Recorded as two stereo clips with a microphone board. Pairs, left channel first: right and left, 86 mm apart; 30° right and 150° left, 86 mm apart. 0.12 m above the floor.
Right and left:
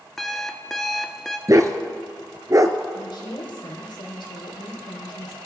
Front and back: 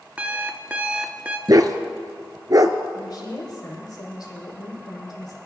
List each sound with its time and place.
0.2 s an alarm clock: 170° right, 0.8 m
1.5 s a dog barking: 125° left, 0.8 m
2.9 s a woman speaking: 70° right, 5.5 m